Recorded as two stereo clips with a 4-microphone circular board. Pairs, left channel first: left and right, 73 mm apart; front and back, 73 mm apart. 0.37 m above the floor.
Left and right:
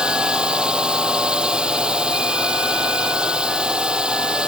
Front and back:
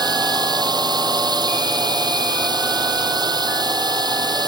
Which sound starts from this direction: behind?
A drone, at 0.0 s.